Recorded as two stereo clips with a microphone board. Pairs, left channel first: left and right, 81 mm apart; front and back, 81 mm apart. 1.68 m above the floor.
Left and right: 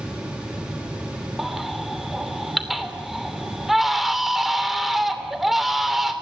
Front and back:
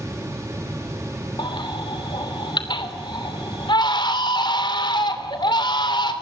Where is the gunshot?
No gunshot in this recording.